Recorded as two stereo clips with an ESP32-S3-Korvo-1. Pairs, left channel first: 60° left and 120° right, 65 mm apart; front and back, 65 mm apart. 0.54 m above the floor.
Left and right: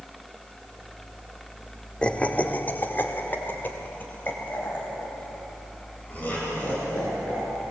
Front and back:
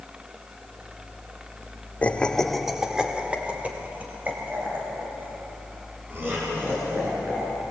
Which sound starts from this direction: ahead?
Laughter, at 2.0 s.